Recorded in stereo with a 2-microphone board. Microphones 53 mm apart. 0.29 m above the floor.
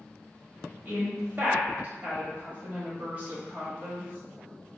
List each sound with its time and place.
0.8 s a woman speaking: 35° right (ahead or behind), 1.1 m